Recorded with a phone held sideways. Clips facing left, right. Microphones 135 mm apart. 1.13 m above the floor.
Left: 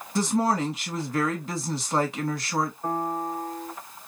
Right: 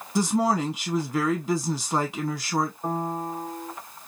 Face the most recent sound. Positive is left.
turn(degrees=-15)  # may be behind; listen again after turning